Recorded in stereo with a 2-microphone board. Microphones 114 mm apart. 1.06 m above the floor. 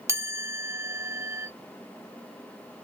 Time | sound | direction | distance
0.1 | a chime | 25° right (ahead or behind) | 1.5 m